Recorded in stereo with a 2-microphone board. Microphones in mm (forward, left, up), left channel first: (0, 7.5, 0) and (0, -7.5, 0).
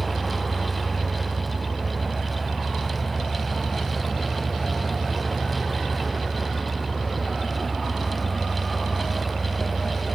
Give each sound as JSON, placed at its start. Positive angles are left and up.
{"t": 0.0, "sound": "an engine running", "side_deg": -5, "distance_m": 4.5}